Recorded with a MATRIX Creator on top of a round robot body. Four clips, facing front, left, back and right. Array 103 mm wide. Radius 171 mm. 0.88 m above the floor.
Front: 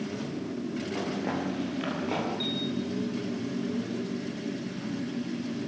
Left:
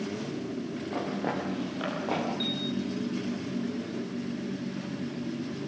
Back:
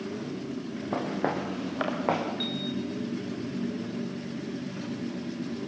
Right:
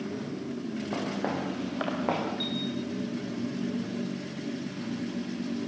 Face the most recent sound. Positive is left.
turn(degrees=-170)